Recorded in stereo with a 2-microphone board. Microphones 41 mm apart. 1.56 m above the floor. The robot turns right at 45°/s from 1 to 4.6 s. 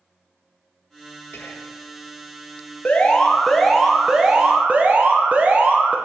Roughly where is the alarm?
Behind left.